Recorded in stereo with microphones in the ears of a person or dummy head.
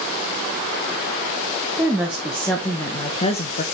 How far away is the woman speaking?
About 1.6 m.